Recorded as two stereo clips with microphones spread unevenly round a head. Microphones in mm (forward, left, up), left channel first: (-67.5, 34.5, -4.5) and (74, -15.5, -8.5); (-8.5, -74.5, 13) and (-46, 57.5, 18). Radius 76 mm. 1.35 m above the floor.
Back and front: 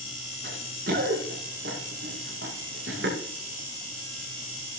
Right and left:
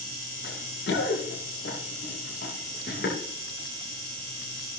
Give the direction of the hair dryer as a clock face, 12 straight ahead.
I don't hear a hair dryer.